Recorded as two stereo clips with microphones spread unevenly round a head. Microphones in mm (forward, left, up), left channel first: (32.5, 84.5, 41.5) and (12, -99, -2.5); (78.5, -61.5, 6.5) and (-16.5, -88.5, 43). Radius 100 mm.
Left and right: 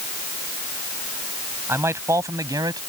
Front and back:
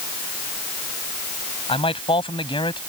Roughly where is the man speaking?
Ahead.